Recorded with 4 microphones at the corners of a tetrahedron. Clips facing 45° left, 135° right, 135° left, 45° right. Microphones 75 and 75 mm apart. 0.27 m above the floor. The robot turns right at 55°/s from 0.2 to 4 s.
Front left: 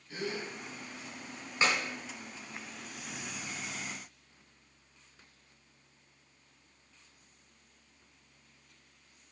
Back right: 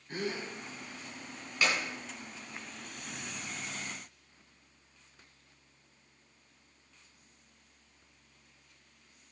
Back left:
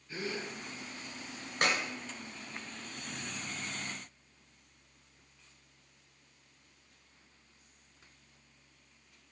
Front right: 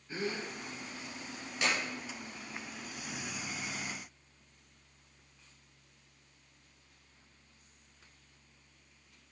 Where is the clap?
105° left, 1.9 m; by 1.8 s 115° left, 1.9 m.